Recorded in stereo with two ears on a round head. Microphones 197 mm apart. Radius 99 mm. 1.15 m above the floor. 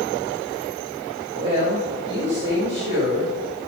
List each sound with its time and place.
1.3 s a woman speaking: 25° right (ahead or behind), 1.8 m